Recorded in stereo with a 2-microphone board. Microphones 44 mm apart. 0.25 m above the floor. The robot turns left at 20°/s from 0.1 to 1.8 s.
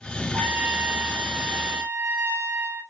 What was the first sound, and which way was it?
A trumpet, 70° right (ahead or behind).